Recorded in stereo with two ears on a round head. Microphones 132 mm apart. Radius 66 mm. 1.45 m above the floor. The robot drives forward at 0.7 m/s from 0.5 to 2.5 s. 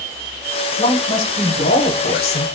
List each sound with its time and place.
0.8 s a man speaking: 35° left (ahead or behind), 1.6 m; by 2.5 s 80° left, 0.9 m